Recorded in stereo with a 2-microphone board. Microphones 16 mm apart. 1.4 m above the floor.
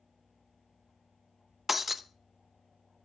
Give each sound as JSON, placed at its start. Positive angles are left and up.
{"t": 1.7, "sound": "breaking glass", "side_deg": -5, "distance_m": 0.7}